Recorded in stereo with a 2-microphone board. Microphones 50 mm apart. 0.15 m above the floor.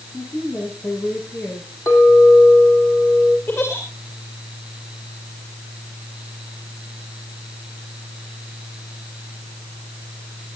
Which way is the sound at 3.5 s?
55° left (ahead or behind).